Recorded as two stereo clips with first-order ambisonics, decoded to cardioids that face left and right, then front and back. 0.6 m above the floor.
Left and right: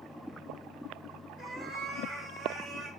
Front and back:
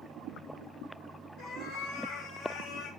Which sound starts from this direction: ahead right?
A cat meowing, at 1.4 s.